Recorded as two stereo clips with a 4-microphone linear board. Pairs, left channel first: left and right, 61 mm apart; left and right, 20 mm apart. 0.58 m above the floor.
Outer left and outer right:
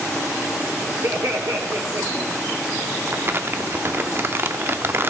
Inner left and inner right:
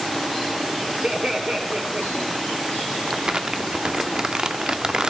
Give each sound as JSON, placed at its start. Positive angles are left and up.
{"t": 1.0, "sound": "laughter", "side_deg": -55, "distance_m": 1.6}
{"t": 3.1, "sound": "crumpling", "side_deg": -40, "distance_m": 0.9}